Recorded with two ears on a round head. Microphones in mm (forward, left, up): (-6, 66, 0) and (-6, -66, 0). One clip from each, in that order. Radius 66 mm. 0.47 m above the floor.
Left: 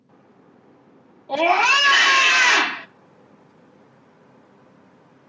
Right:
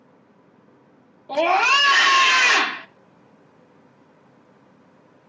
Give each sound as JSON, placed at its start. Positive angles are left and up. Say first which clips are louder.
{"t": 1.3, "sound": "a scream", "louder": "left 1 dB", "side_deg": -5, "distance_m": 0.9}